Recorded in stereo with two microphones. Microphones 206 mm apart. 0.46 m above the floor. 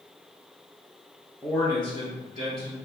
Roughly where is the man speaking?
Centre.